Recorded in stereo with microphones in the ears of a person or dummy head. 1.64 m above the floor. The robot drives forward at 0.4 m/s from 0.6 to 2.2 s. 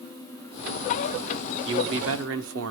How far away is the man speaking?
About 1.1 m.